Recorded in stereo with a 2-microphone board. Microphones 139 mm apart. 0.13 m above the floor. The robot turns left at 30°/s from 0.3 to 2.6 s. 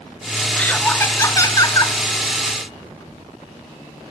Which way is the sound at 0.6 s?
160° left.